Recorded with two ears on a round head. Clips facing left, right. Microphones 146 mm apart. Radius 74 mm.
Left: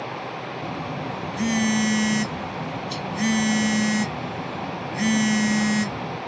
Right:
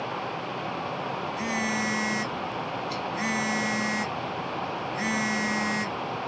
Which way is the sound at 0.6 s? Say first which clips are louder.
Left 4 dB; 35° left (ahead or behind).